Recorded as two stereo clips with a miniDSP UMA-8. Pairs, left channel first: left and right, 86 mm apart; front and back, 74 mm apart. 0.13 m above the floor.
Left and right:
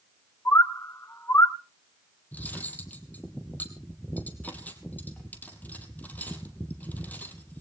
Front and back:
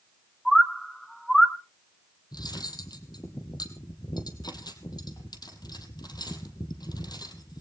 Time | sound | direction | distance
0.5 | a bird | 85° left | 0.9 m
2.3 | cutlery clinking | 20° left | 2.5 m